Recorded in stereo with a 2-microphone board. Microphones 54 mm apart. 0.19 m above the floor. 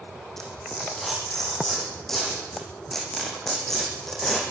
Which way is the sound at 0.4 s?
5° left (ahead or behind).